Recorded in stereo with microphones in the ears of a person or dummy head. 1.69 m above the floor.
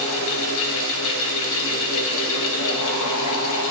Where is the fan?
65° left (ahead or behind), 1.0 m.